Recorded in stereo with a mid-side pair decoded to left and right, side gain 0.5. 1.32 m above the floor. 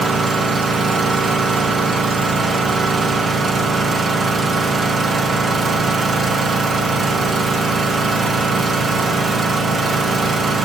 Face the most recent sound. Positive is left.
turn(degrees=-40)